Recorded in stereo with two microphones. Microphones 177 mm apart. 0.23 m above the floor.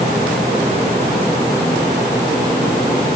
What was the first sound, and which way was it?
Only background noise.